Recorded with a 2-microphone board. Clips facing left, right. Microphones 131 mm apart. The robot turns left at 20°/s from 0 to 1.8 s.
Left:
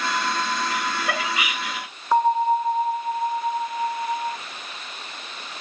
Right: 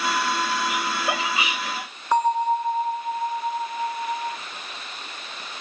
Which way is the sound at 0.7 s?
15° right (ahead or behind).